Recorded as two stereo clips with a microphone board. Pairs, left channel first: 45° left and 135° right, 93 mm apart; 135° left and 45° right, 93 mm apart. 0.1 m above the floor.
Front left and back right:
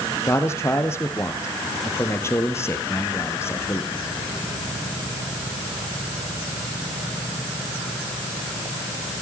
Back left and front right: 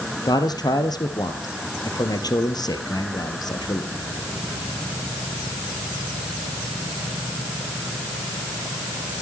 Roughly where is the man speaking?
Left.